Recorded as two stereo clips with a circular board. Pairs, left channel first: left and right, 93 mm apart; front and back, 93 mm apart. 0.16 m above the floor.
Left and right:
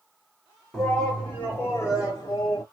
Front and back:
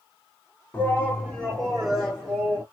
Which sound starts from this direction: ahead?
A shout, at 0.7 s.